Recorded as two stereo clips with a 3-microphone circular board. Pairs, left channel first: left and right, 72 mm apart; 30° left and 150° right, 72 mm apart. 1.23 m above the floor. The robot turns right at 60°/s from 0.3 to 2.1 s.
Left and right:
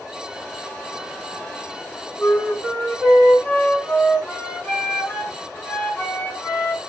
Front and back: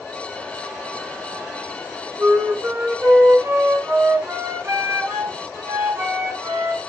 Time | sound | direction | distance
2.2 | a flute | 160° left | 3.5 m